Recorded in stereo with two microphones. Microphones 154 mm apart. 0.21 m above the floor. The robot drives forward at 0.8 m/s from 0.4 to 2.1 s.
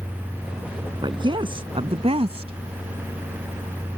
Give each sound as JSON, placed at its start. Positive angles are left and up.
{"t": 1.0, "sound": "a woman speaking", "side_deg": -30}